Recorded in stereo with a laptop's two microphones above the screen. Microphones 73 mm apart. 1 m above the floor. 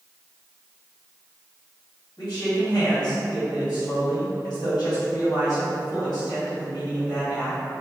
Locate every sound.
2.2 s a man speaking: 70° left (ahead or behind), 2.0 m